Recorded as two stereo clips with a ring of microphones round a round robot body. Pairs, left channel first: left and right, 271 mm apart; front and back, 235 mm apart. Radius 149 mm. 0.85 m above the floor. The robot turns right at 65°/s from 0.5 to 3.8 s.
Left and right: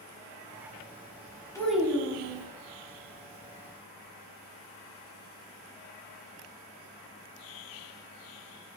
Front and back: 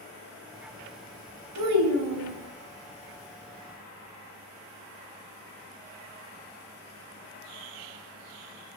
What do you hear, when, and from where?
1.6 s a child speaking: 170° left, 0.9 m; by 2.5 s 130° right, 0.9 m